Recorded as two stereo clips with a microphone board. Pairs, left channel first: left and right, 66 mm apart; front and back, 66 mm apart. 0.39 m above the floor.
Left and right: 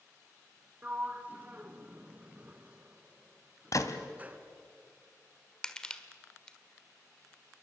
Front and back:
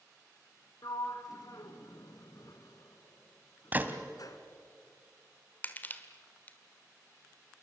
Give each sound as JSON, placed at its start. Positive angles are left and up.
{"t": 0.8, "sound": "a sliding door", "azimuth_deg": -25, "distance_m": 1.5}
{"t": 3.7, "sound": "a gunshot", "azimuth_deg": 115, "distance_m": 1.4}
{"t": 5.6, "sound": "crushing", "azimuth_deg": 20, "distance_m": 1.4}